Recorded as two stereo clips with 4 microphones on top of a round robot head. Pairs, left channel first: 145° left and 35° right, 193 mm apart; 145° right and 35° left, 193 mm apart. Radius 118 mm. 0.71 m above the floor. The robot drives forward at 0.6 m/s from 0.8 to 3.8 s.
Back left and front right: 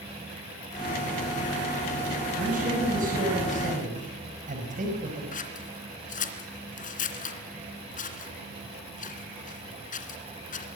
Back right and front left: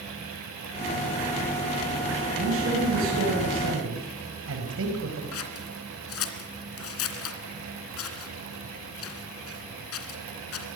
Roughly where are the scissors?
Behind.